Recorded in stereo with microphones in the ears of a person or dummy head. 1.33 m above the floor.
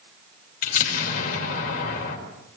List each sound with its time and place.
0.6 s an explosion: 45° left (ahead or behind), 2 m